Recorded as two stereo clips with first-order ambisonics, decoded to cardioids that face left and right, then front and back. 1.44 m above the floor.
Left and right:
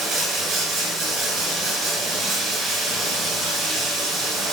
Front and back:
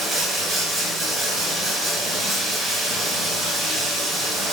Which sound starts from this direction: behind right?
Running water, at 0.0 s.